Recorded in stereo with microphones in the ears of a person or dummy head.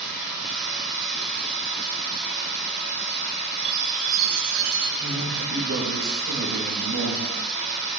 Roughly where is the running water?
Right.